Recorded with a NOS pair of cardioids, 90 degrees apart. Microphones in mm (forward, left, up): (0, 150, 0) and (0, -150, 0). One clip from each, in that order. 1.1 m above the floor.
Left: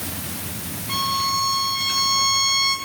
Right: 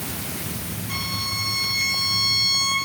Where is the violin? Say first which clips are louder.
Left 6 dB; 20° left, 9 m.